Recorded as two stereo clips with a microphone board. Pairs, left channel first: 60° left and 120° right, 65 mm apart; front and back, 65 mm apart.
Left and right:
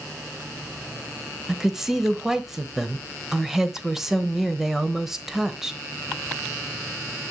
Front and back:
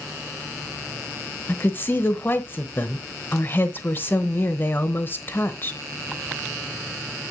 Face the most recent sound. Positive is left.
turn(degrees=-40)